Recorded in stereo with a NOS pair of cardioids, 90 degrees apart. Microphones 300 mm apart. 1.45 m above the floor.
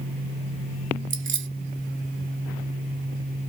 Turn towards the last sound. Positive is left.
turn(degrees=-40)